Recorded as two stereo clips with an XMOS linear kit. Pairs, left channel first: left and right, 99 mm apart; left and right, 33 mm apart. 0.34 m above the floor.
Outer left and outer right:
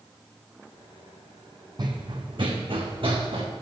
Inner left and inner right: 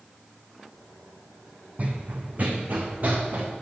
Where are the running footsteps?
50° right (ahead or behind), 1.0 m; by 3.5 s 60° right (ahead or behind), 1.9 m.